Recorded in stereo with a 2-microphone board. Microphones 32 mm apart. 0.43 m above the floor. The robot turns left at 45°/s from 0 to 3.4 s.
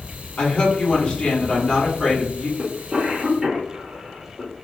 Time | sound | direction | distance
0.4 | a woman speaking | 70° left | 1.4 m
2.6 | a cough | 35° right (ahead or behind) | 0.9 m